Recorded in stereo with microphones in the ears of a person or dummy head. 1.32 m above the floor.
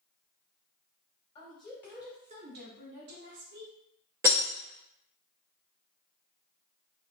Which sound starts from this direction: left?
A woman speaking, at 1.4 s.